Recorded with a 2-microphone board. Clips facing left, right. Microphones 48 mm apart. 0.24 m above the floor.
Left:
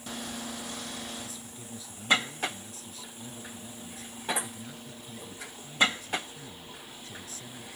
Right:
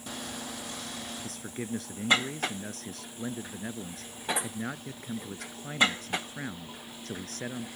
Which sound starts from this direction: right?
A man speaking, at 1.2 s.